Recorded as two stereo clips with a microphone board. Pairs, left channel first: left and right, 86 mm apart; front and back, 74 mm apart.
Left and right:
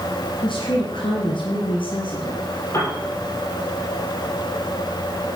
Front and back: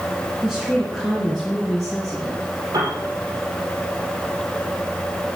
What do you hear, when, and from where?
0.4 s a woman speaking: 95° left, 3 m; by 2.4 s 75° left, 4 m
2.7 s a piano: 145° left, 5 m